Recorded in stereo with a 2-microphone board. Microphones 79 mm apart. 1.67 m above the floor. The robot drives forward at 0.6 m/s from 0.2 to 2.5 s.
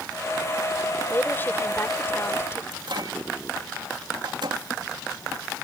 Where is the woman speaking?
25° left (ahead or behind); by 2.6 s 30° left (ahead or behind).